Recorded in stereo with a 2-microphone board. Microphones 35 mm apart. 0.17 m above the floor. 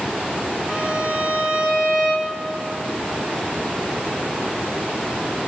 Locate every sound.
0.7 s a violin: 45° right (ahead or behind), 4.5 m